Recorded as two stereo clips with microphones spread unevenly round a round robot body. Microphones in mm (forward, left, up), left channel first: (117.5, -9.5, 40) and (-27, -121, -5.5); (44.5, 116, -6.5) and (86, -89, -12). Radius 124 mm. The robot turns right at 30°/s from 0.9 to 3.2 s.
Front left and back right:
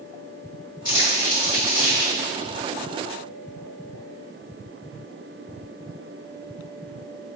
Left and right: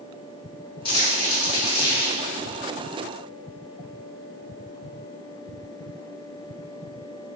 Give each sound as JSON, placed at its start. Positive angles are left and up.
{"t": 0.8, "sound": "crumpling", "azimuth_deg": 100, "distance_m": 2.0}